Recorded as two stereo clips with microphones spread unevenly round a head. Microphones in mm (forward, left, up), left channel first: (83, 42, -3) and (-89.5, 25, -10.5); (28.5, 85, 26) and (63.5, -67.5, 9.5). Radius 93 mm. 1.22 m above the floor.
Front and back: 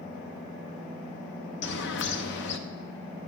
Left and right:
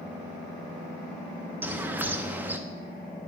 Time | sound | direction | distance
1.6 | a bird | 5° left | 0.6 m